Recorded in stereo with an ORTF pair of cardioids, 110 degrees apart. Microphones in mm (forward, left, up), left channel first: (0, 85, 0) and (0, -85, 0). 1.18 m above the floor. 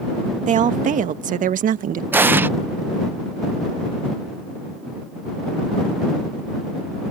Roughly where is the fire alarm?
I don't hear a fire alarm.